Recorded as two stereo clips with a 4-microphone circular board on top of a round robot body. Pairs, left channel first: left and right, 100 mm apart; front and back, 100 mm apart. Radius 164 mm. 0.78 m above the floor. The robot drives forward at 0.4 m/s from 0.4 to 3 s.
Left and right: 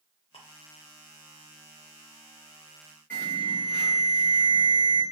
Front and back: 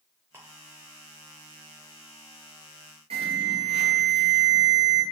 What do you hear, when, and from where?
0.3 s ticking: 115° left, 0.5 m; by 0.4 s 120° left, 0.5 m
3.1 s an alarm: 165° left, 2 m